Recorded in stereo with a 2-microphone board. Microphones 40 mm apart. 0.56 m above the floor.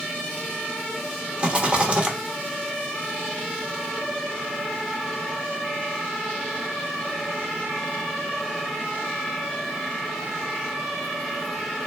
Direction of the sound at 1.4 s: 30° right (ahead or behind).